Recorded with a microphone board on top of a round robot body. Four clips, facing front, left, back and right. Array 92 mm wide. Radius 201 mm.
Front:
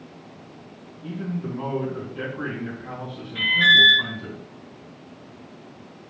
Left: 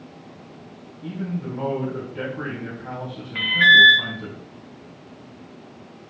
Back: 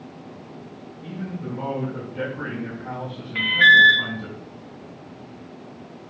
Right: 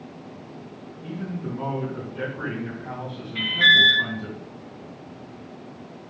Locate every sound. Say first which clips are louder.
1.0 s a man speaking: left 3 dB, front 2 dB; 125° left, 4.5 m
3.4 s an alarm: left 5 dB, back 4 dB; 135° left, 2 m